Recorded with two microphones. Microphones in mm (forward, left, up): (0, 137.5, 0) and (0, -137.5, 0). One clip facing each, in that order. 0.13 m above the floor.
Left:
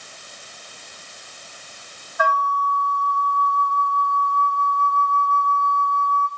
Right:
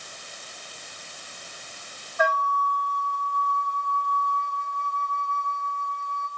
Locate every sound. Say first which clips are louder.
2.2 s a flute: left 1 dB; 10° left (ahead or behind), 1.6 m